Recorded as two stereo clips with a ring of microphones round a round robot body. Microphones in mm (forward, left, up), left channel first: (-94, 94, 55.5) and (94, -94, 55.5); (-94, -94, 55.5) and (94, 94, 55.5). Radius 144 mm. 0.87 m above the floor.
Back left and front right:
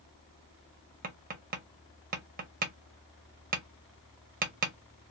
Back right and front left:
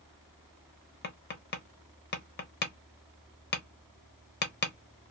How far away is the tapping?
About 0.8 m.